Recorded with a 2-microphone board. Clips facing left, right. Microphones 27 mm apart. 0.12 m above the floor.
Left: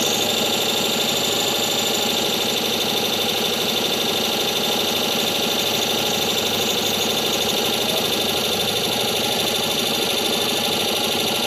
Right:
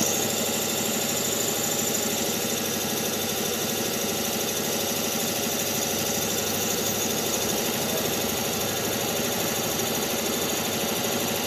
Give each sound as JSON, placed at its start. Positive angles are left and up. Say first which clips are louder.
{"t": 0.0, "sound": "an engine running", "louder": "left 6 dB", "side_deg": 60, "distance_m": 0.7}